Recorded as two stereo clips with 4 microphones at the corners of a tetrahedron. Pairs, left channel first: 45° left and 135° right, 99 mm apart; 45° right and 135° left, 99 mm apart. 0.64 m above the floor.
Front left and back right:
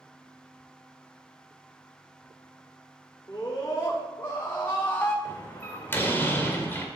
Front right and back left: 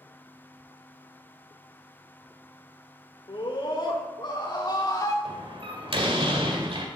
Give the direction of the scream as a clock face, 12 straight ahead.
1 o'clock.